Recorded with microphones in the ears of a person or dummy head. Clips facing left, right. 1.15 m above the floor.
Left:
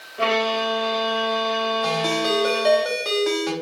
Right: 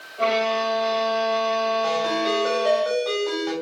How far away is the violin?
About 1.1 m.